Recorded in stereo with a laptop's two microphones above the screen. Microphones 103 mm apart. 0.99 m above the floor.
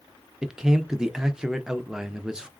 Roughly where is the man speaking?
Centre.